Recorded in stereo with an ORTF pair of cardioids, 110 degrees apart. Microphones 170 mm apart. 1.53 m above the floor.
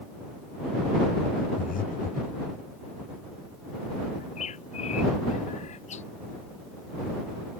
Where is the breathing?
55° left.